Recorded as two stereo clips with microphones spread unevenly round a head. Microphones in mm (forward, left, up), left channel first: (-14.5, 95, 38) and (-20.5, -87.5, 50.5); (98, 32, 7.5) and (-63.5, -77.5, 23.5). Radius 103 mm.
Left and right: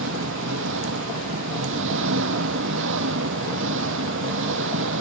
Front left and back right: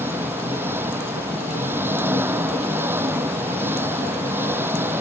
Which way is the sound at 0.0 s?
65° right.